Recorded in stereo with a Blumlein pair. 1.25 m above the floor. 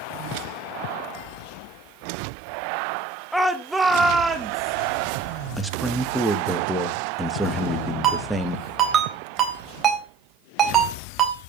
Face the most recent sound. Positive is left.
turn(degrees=-25)